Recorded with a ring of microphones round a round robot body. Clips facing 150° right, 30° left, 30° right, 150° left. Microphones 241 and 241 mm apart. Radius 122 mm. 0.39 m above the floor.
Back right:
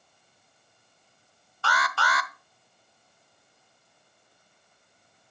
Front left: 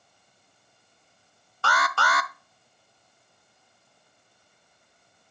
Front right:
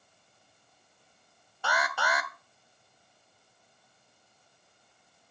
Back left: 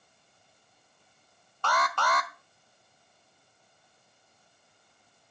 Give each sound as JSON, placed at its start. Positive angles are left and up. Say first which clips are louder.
{"t": 1.6, "sound": "an alarm", "louder": "front left 2 dB, back left 2 dB", "azimuth_deg": 45, "distance_m": 1.0}